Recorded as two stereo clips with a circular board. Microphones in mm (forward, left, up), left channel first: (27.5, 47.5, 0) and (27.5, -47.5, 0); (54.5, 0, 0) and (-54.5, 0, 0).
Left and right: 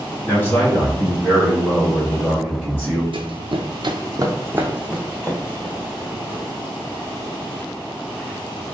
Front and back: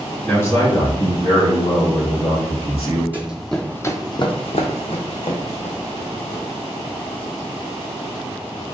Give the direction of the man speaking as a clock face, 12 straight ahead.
10 o'clock.